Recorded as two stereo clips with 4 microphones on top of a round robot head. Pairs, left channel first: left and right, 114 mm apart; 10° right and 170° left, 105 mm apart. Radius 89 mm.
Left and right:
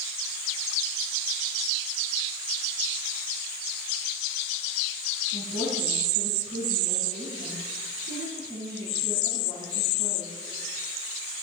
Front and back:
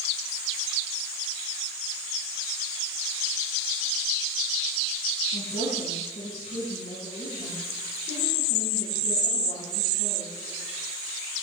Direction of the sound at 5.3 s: 25° right.